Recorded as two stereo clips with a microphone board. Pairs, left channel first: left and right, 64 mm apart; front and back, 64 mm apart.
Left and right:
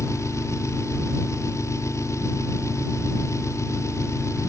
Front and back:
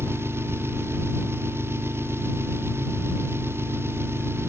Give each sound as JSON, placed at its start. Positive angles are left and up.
{"t": 0.0, "sound": "an engine running", "azimuth_deg": 130}